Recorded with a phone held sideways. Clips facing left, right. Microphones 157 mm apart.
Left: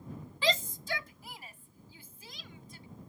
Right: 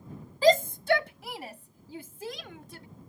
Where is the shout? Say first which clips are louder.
Right 11 dB; 40° right (ahead or behind); by 2.9 s 80° right.